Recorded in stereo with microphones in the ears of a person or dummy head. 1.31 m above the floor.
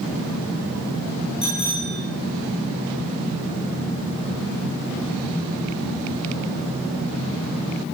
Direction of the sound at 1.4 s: 25° left (ahead or behind).